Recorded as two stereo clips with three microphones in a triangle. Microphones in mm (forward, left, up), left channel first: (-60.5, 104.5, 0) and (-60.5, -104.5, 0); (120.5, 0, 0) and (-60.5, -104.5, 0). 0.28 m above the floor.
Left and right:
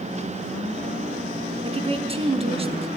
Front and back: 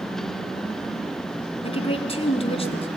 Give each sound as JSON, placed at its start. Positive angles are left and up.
{"t": 1.6, "sound": "a woman speaking", "azimuth_deg": -30, "distance_m": 2.5}